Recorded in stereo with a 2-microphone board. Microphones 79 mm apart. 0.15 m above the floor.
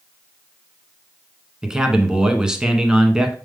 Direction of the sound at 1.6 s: 10° right (ahead or behind).